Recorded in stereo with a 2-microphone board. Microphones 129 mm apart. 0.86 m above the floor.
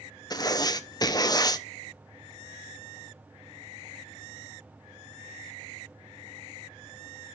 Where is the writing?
30° left (ahead or behind), 0.6 m.